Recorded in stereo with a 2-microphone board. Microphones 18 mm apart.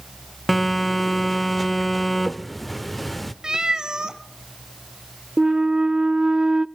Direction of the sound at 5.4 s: 50° right (ahead or behind).